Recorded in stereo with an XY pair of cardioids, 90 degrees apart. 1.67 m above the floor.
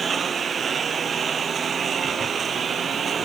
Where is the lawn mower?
45° right; by 3.3 s 50° right.